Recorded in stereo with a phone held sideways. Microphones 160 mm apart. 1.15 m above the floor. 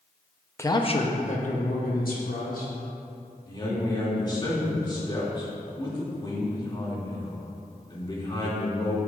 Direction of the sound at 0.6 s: 15° left (ahead or behind).